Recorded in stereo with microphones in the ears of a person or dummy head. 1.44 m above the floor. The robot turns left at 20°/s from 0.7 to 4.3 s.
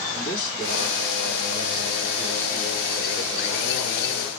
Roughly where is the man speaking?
Ahead left.